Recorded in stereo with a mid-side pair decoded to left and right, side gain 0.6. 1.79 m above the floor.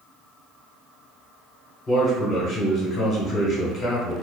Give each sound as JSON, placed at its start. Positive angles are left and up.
{"t": 1.9, "sound": "a man speaking", "azimuth_deg": 35, "distance_m": 1.2}